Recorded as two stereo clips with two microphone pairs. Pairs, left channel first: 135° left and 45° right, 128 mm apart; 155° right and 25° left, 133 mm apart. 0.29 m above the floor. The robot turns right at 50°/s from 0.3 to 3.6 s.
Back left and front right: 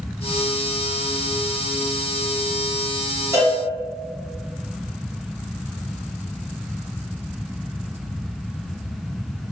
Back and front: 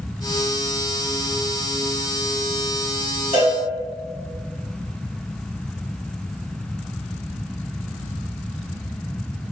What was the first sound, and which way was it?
A cowbell, 15° left.